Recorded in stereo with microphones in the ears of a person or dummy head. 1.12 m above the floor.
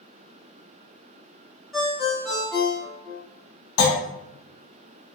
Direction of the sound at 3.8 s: 80° left.